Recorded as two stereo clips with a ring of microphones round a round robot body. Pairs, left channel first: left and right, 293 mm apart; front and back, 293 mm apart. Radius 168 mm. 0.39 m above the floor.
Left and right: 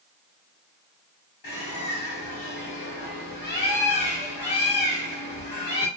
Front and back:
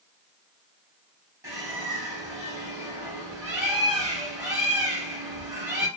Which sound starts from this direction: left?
A bird, at 1.4 s.